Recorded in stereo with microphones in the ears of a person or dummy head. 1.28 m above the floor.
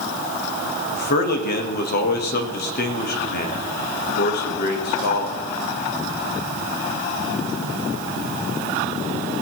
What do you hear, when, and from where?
0.9 s a man speaking: 60° left (ahead or behind), 1.4 m